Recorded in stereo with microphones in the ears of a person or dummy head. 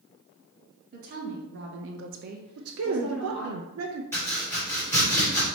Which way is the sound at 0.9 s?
45° right (ahead or behind).